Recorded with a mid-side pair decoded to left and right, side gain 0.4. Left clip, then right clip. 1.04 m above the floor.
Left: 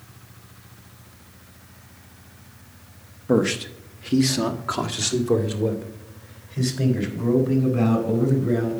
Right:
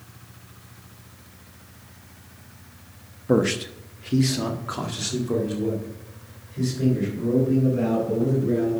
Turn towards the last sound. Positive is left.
turn(degrees=60)